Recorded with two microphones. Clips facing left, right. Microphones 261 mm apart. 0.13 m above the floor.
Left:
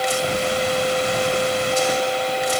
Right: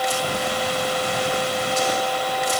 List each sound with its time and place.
Only background noise.